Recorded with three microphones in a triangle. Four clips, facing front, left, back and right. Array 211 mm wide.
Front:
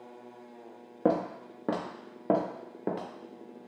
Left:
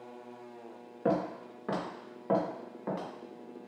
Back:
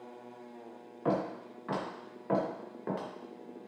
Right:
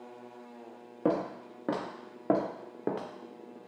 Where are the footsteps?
20° right, 1.7 m; by 3.1 s 55° right, 1.3 m.